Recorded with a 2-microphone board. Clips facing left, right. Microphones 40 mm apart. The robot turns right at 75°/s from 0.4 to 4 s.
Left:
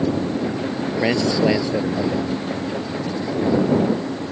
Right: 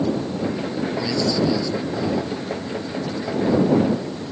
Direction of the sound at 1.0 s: 55° left.